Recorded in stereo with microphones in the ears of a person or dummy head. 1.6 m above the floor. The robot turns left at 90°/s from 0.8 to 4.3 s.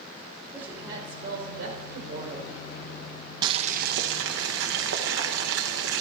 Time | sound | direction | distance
0.5 | a woman speaking | 15° right | 5.5 m
3.4 | boiling | 25° right | 1.4 m